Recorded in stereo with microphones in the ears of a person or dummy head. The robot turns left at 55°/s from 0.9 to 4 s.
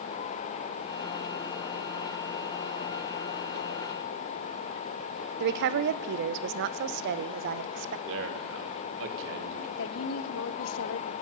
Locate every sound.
5.4 s a woman speaking: 55° right (ahead or behind), 0.6 m
8.1 s a man speaking: 75° right (ahead or behind), 1.8 m
9.8 s a woman speaking: 70° left (ahead or behind), 0.8 m